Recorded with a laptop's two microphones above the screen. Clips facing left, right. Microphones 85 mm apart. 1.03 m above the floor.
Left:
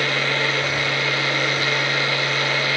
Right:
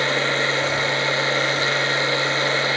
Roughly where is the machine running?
Right.